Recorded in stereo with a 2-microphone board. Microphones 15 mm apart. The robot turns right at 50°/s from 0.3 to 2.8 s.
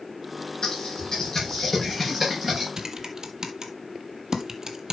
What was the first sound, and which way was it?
Typing on a keyboard, 65° left (ahead or behind).